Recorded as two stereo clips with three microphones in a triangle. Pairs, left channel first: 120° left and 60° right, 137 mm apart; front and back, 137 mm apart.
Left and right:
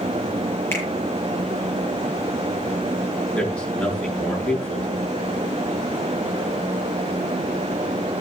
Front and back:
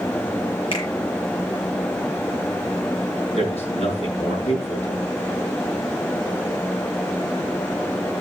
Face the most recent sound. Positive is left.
turn(degrees=40)